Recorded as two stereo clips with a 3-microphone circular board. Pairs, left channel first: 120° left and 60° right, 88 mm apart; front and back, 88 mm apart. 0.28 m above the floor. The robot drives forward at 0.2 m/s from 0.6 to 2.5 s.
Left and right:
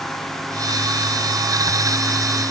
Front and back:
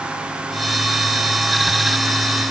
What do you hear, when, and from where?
Only background noise.